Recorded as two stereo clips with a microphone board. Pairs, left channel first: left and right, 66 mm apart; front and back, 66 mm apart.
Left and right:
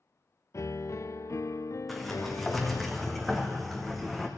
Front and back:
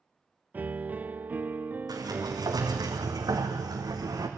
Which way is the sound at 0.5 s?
120° left.